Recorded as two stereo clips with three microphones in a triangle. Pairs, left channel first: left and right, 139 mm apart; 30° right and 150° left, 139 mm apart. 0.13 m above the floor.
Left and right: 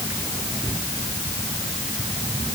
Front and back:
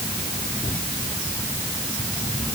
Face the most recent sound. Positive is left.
No sound to turn to.